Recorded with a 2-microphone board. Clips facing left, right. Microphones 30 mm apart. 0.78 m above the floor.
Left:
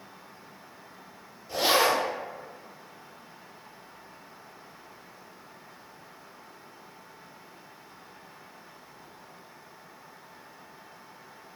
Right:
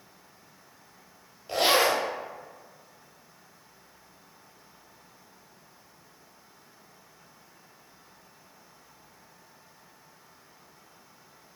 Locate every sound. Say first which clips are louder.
1.5 s a zipper: right 1 dB; 65° right (ahead or behind), 0.9 m